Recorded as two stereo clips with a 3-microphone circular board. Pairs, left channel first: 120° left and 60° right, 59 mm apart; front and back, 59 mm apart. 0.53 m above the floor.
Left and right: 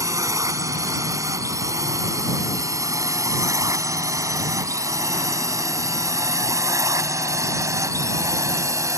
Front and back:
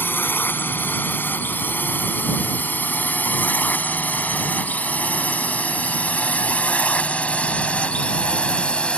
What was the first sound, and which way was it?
A drone, 55° right.